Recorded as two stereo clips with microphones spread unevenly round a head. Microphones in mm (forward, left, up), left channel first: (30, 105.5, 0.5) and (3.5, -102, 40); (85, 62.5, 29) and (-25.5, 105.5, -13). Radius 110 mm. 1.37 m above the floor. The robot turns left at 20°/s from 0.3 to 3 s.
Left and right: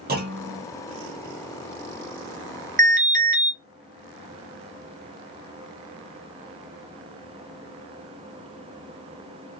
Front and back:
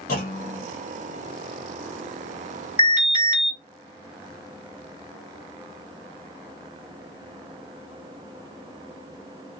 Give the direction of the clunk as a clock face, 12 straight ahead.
2 o'clock.